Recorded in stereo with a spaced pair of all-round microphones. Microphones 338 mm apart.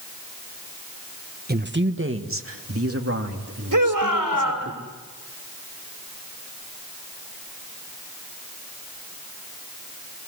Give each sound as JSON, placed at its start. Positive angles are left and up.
{"t": 1.5, "sound": "a man speaking", "side_deg": -30, "distance_m": 1.4}
{"t": 3.7, "sound": "a shout", "side_deg": -65, "distance_m": 5.5}